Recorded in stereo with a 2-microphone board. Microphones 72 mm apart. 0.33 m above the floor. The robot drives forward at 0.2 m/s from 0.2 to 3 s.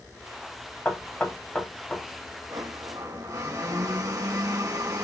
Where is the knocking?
20° left (ahead or behind), 1.3 m; by 2.0 s 25° left (ahead or behind), 1.2 m.